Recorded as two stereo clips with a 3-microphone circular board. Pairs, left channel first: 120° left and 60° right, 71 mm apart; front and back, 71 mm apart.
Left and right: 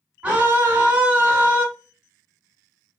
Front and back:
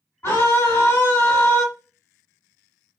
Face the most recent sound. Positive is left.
turn(degrees=-5)